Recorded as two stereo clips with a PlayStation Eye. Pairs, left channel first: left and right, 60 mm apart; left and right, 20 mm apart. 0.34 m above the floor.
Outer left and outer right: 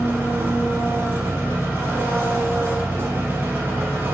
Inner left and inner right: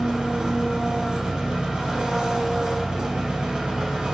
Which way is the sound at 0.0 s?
50° right (ahead or behind).